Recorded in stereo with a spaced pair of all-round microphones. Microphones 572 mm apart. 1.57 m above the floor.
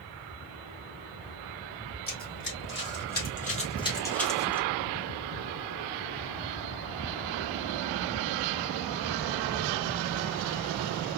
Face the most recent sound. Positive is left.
turn(degrees=-5)  # may be behind; listen again after turning